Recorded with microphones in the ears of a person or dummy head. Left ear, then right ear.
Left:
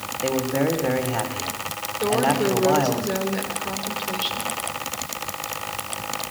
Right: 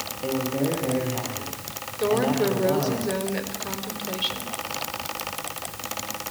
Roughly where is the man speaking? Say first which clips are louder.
Left 4 dB; left.